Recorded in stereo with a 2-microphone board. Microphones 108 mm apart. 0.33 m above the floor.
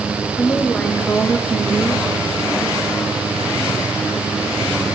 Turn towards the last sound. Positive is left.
turn(degrees=-15)  # may be behind; listen again after turning